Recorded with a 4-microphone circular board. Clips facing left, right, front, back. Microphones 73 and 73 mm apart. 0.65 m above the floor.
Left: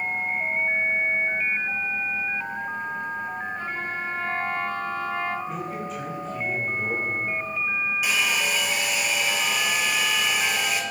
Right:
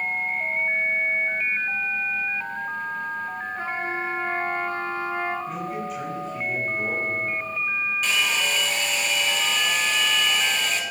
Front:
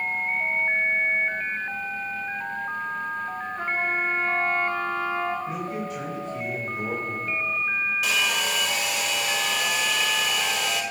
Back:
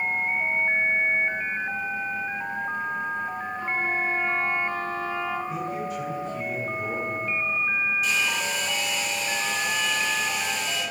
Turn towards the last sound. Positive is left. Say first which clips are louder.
# even, front 1 dB
turn(degrees=10)